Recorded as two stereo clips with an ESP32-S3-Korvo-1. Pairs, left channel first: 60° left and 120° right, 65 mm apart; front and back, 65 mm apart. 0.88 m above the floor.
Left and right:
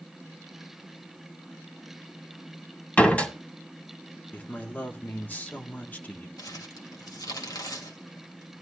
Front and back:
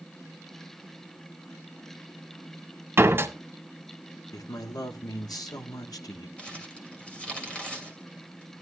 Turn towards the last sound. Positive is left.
turn(degrees=70)